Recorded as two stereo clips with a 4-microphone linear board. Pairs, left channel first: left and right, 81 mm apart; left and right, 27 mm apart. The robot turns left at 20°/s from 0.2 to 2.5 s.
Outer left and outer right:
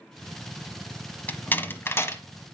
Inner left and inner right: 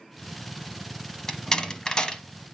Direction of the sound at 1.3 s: 20° left (ahead or behind).